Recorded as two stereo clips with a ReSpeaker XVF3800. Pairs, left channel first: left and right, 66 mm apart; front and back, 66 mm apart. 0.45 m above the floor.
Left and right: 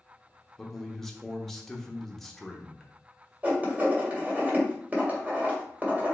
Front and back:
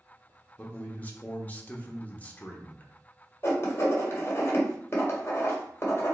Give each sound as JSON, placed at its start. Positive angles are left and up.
{"t": 0.6, "sound": "a man speaking", "azimuth_deg": 10, "distance_m": 0.9}
{"t": 3.4, "sound": "writing", "azimuth_deg": -35, "distance_m": 1.7}